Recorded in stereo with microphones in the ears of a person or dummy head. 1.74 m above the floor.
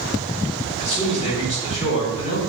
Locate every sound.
0.8 s a man speaking: 35° left (ahead or behind), 1.0 m